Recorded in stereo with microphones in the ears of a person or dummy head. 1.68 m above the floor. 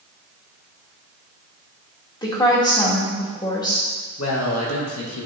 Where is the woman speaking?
20° left (ahead or behind), 2 m.